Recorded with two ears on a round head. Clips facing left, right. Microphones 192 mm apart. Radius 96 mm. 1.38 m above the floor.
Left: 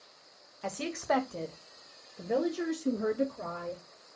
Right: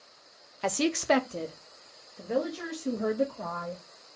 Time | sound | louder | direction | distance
0.6 | a woman speaking | right 7 dB | 70° right (ahead or behind) | 0.7 m